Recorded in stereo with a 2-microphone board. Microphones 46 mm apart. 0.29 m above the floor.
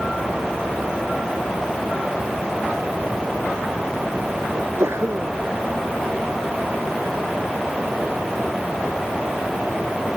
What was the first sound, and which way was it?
A sneeze, 80° right.